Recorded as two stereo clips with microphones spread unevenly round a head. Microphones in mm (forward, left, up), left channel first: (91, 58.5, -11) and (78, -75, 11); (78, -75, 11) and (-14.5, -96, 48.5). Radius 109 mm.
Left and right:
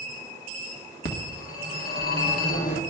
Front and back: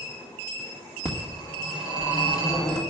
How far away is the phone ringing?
About 1.5 m.